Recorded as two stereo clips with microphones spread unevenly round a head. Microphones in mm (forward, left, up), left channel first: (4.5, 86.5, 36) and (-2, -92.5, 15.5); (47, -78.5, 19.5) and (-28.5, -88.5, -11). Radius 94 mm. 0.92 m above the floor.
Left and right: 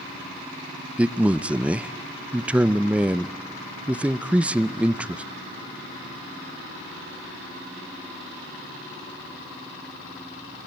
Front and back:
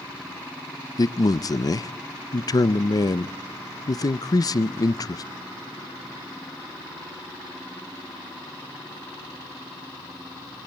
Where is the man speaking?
25° right, 0.6 m.